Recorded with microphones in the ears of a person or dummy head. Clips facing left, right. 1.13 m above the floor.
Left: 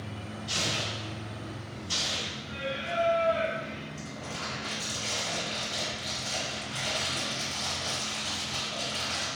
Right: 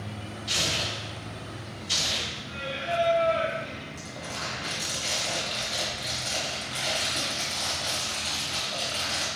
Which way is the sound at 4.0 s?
20° right (ahead or behind).